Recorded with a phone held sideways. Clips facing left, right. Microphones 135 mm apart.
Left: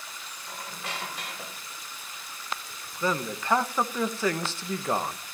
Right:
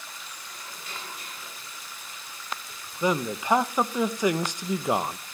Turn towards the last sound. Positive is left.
turn(degrees=-15)  # may be behind; listen again after turning